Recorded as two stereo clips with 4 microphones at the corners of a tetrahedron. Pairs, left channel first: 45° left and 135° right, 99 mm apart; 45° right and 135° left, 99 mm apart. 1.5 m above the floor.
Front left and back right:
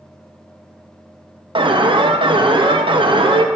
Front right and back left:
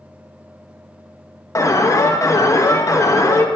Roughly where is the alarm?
Right.